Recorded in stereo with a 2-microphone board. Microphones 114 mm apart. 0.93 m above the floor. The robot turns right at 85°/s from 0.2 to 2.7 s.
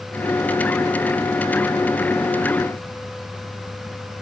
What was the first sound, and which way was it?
Only background noise.